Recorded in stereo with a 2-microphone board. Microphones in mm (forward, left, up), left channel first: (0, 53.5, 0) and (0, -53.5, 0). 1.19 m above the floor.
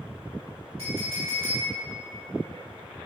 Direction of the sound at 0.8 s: 70° right (ahead or behind).